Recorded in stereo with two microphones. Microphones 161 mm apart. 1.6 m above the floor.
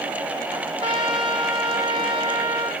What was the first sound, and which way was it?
A trumpet, 30° right (ahead or behind).